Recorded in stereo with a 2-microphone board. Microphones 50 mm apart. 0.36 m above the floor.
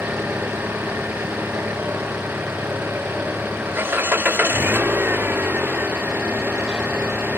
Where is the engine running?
45° right (ahead or behind).